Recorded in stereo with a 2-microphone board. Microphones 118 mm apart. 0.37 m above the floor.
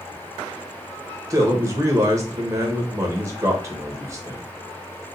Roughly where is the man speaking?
Right.